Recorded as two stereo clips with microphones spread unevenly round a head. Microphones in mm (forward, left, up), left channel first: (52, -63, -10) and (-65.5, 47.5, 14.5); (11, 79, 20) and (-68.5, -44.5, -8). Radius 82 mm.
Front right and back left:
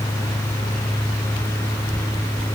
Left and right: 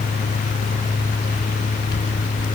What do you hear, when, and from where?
Only background noise.